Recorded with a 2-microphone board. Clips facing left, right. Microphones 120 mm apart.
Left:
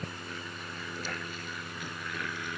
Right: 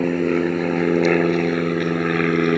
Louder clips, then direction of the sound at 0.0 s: Right 23 dB; 70° right (ahead or behind).